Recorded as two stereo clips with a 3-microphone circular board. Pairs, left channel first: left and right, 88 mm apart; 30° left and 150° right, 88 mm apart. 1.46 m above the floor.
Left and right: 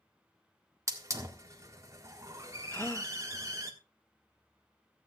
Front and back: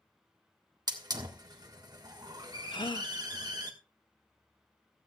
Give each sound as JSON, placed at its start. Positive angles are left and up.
{"t": 0.9, "sound": "a hiss", "azimuth_deg": -135, "distance_m": 1.4}
{"t": 2.7, "sound": "a gasp", "azimuth_deg": 30, "distance_m": 0.7}